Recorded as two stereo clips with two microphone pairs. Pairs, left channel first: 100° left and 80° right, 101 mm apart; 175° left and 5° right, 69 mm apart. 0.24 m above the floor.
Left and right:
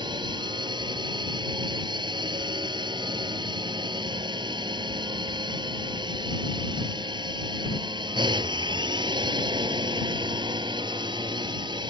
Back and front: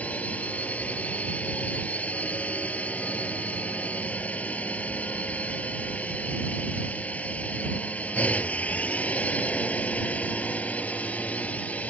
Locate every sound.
0.0 s a drone: 120° right